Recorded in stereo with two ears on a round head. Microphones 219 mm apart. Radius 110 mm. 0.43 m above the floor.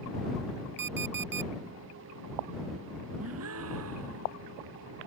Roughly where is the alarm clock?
Right.